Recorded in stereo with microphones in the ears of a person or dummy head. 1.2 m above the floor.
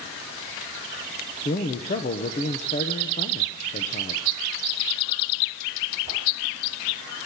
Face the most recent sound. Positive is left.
turn(degrees=30)  # may be behind; listen again after turning